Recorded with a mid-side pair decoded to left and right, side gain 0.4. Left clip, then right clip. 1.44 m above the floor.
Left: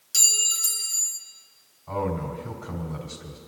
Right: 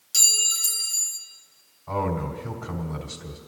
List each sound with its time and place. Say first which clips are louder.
0.1 s a clink: right 1 dB; 5° right, 1.4 m
1.9 s a man speaking: right 1 dB; 30° right, 3.5 m